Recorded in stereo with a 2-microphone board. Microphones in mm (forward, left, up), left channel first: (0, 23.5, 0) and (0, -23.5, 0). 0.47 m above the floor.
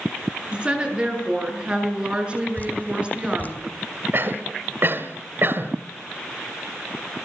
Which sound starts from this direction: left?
Dripping, at 2.6 s.